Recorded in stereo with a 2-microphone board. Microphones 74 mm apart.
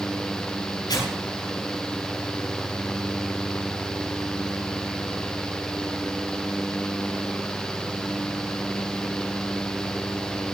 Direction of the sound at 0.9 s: 65° left (ahead or behind).